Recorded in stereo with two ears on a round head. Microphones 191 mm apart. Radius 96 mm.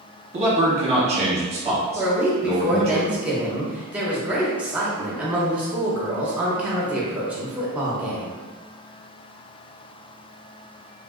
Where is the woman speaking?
5° right (ahead or behind), 0.7 m.